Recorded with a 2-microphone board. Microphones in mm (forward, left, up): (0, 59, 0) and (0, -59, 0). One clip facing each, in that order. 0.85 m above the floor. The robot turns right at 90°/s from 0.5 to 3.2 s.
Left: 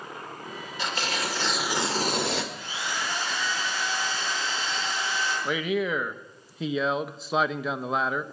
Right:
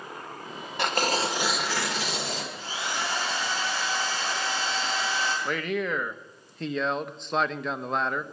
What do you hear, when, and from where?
0.8 s tearing paper: 70° right, 1.7 m; by 2.4 s 80° left, 1.7 m
2.5 s a drill: 155° right, 8.5 m; by 5.3 s 95° right, 8.5 m
5.5 s a man speaking: 5° left (ahead or behind), 0.8 m